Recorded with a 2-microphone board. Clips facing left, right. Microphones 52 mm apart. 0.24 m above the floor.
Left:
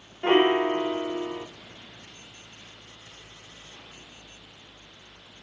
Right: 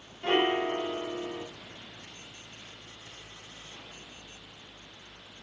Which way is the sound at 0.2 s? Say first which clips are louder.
Left 6 dB; 35° left (ahead or behind).